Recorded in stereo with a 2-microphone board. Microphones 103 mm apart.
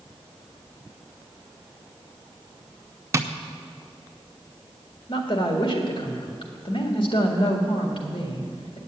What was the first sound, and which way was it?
Tapping, 30° right (ahead or behind).